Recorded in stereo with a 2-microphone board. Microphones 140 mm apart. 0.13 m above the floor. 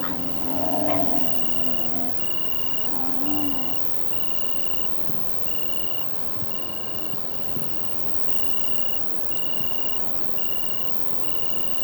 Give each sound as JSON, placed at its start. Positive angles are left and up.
{"t": 0.0, "sound": "an insect", "side_deg": 5}